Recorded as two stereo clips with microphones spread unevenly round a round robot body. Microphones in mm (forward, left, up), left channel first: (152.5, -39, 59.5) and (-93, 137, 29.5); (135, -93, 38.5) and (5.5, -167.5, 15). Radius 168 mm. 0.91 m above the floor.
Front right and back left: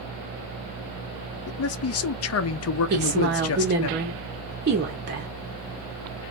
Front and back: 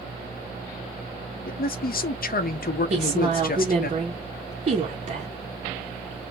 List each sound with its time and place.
1.5 s a man speaking: 10° left, 0.6 m
2.9 s a woman speaking: 170° right, 1.0 m